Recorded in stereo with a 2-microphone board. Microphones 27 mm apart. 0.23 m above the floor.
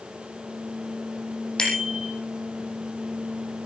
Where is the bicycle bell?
25° left (ahead or behind), 6.5 m.